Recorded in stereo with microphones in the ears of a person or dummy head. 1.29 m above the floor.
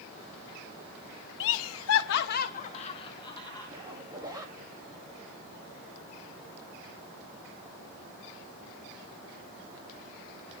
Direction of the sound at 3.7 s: 15° right (ahead or behind).